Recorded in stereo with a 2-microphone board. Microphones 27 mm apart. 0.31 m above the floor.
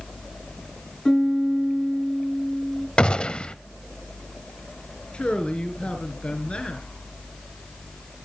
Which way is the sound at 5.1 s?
45° left (ahead or behind).